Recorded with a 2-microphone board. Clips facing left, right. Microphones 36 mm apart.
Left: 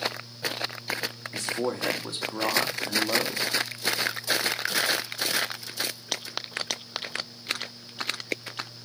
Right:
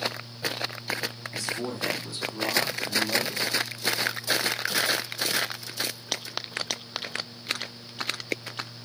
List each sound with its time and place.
1.3 s a man speaking: 55° left (ahead or behind), 1.4 m